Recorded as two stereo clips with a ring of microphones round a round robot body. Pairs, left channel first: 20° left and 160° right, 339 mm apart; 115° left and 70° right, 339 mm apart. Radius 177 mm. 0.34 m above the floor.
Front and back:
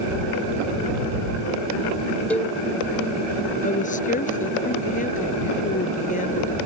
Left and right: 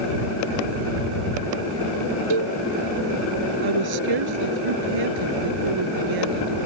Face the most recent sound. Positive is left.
turn(degrees=-45)